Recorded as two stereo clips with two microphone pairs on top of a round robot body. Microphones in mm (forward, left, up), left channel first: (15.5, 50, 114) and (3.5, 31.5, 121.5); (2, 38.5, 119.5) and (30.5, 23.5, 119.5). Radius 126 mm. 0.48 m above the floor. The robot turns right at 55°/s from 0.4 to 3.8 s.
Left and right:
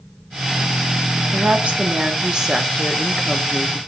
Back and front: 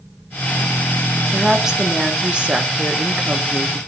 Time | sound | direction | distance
1.3 | a woman speaking | 115° right | 1.4 m